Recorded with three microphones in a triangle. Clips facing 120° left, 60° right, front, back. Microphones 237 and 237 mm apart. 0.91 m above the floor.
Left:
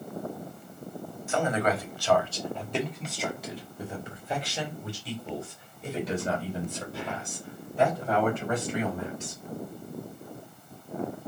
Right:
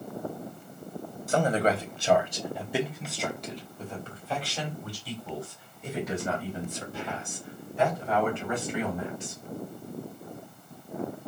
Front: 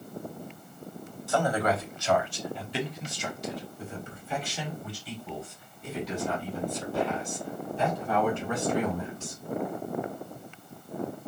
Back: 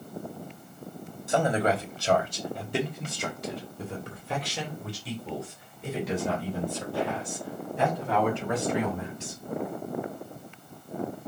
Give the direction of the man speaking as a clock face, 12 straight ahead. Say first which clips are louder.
Right 2 dB, back 2 dB; 4 o'clock.